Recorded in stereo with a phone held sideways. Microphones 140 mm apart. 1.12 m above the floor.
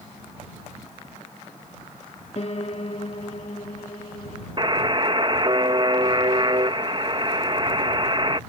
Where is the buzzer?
35° right (ahead or behind).